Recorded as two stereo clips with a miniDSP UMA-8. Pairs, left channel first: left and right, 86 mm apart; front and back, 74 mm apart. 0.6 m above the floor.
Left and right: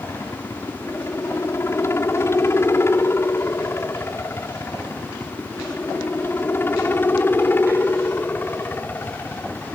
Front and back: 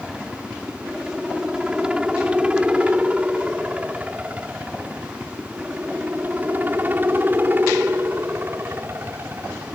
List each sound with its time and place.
0.0 s a helicopter: 105° left; by 9.8 s 145° left